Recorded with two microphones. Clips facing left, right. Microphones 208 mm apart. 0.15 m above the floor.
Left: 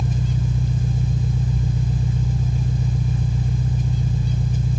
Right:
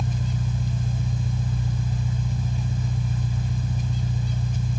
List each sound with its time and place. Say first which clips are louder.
0.0 s an engine running: left 4 dB; 55° left (ahead or behind), 3 m